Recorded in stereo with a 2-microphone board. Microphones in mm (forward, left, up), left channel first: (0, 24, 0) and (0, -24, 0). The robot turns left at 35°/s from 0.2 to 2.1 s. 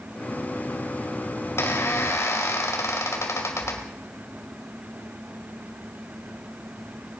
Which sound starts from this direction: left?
A squeak, at 1.4 s.